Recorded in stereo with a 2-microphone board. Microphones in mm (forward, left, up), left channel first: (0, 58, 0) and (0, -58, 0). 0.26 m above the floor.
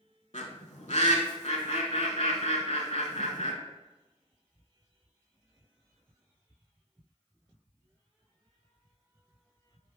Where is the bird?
75° left (ahead or behind), 0.6 m.